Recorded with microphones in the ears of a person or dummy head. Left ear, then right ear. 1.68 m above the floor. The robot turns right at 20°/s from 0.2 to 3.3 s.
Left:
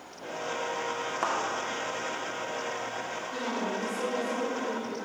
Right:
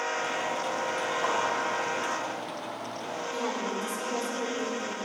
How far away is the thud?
About 2.0 m.